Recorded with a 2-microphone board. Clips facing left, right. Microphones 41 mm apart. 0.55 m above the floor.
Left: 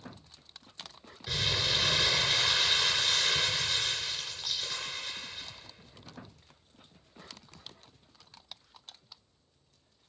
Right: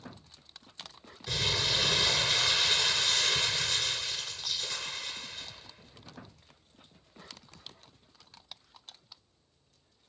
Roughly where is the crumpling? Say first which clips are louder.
Even; centre.